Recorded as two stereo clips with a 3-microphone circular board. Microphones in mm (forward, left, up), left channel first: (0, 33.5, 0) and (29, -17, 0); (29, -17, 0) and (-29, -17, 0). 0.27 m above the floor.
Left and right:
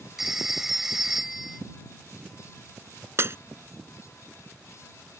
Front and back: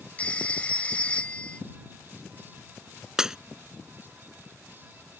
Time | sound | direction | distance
0.2 | a phone ringing | 15° left | ?
3.2 | breaking glass | 100° right | ?